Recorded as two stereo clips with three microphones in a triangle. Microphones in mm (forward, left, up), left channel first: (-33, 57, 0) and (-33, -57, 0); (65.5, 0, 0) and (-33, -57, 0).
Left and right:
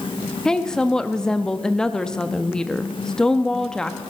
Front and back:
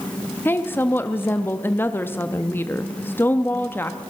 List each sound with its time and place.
0.5 s a woman speaking: 20° left, 0.7 m